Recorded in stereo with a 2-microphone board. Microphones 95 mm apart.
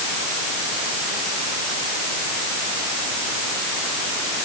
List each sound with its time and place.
Only background noise.